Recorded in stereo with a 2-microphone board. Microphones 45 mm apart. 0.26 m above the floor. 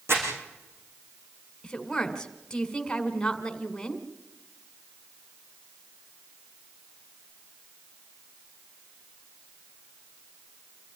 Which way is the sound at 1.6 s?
15° left (ahead or behind).